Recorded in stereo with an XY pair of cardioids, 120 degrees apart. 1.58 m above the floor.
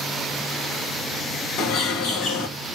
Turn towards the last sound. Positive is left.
turn(degrees=70)